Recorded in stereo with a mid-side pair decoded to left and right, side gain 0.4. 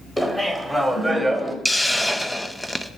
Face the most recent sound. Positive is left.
turn(degrees=5)